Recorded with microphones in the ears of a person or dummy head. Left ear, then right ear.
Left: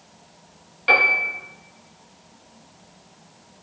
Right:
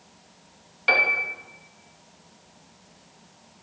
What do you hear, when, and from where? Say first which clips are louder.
0.9 s a piano: left 4 dB; 20° right (ahead or behind), 2.5 m